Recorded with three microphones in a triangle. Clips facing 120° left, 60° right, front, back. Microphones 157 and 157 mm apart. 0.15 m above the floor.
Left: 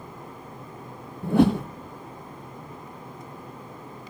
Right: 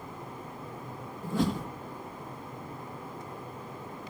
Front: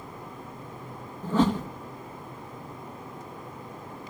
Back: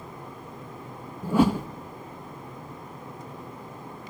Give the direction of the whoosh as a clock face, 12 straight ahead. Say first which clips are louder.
Left 10 dB, back 2 dB; 9 o'clock.